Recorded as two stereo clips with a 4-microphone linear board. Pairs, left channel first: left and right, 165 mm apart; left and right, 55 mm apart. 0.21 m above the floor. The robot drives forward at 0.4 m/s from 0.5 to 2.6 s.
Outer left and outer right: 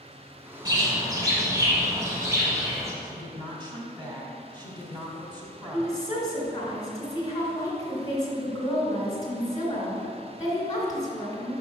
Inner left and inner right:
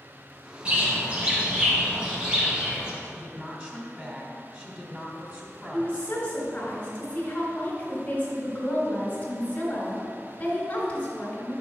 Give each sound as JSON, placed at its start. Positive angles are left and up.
{"t": 0.7, "sound": "a bird", "side_deg": -25, "distance_m": 1.3}
{"t": 3.0, "sound": "a woman speaking", "side_deg": -25, "distance_m": 1.1}
{"t": 5.7, "sound": "a woman speaking", "side_deg": 20, "distance_m": 2.0}